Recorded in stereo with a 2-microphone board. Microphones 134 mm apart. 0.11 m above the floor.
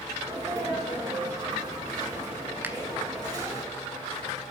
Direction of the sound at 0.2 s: 30° right (ahead or behind).